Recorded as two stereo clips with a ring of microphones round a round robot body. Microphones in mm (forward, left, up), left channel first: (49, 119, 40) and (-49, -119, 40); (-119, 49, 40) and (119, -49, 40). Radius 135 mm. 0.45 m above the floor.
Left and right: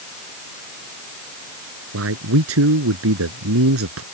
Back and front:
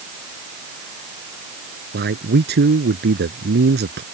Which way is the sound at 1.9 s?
75° right.